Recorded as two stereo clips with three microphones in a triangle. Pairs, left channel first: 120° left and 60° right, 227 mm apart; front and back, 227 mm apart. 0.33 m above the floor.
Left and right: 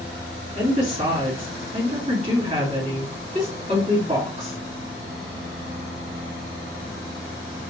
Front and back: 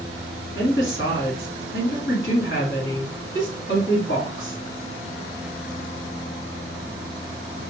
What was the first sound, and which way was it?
A woman speaking, 5° right.